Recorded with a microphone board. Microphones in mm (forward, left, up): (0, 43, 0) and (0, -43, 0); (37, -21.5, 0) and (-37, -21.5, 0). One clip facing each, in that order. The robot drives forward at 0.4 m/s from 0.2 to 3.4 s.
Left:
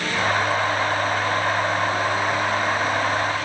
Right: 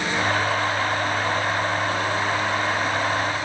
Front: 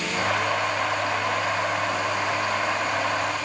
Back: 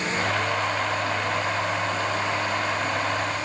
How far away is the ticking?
I don't hear ticking.